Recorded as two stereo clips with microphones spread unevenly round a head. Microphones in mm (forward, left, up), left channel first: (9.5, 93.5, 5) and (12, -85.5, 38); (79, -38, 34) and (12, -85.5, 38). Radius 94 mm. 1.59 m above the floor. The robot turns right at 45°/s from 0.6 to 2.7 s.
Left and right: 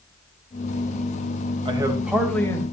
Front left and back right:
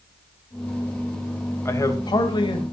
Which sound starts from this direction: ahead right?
A man speaking, at 1.6 s.